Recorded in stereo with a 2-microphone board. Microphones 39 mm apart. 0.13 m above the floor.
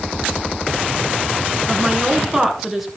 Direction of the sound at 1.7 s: 10° right (ahead or behind).